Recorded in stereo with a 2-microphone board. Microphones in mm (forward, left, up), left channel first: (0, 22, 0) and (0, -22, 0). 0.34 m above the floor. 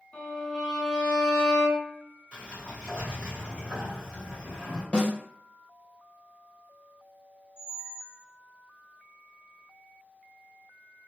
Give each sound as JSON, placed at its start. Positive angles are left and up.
{"t": 0.1, "sound": "a violin", "side_deg": 15, "distance_m": 1.3}
{"t": 2.3, "sound": "a sliding door", "side_deg": -25, "distance_m": 1.5}
{"t": 4.9, "sound": "a snare drum", "side_deg": 25, "distance_m": 1.6}
{"t": 7.6, "sound": "a squeak", "side_deg": -15, "distance_m": 0.5}